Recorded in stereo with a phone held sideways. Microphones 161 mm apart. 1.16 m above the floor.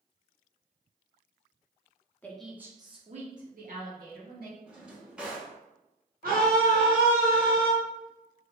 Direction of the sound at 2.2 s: 10° left (ahead or behind).